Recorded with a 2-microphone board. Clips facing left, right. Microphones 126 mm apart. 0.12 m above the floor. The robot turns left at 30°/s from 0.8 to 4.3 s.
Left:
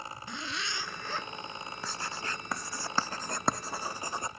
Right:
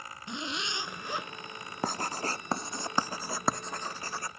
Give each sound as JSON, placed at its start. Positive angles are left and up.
{"t": 0.3, "sound": "a zipper", "side_deg": -20}
{"t": 1.8, "sound": "writing", "side_deg": -50}